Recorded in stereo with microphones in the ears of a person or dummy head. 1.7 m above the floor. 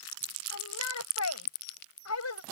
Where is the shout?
85° left.